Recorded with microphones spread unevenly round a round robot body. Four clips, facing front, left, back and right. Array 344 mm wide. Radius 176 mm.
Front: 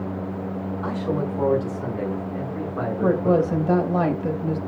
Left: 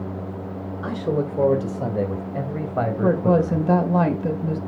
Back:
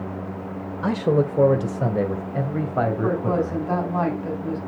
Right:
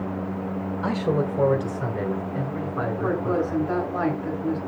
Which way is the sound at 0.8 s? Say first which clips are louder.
Even, back 7 dB; 170° right.